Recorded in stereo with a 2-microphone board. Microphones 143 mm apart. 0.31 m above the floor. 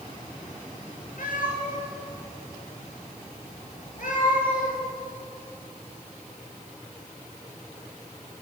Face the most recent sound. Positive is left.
turn(degrees=65)  # may be behind; listen again after turning